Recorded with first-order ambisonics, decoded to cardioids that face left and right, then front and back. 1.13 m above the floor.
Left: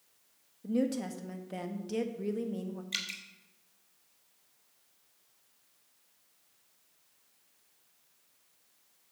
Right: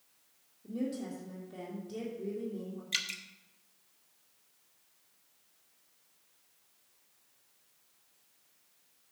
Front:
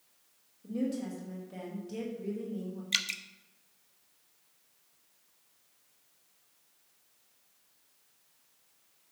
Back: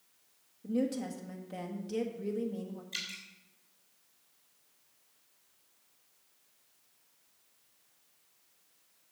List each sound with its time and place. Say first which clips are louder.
0.6 s a woman speaking: left 6 dB, back 2 dB; 110° left, 1.4 m
2.9 s dripping: right 2 dB, front 9 dB; 5° right, 0.8 m